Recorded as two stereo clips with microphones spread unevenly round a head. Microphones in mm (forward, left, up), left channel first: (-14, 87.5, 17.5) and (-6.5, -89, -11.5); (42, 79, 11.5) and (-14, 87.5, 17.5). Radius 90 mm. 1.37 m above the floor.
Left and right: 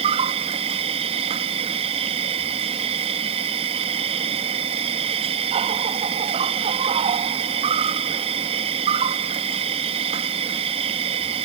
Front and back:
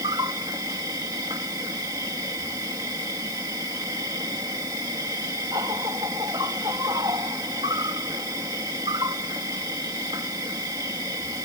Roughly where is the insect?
Behind right.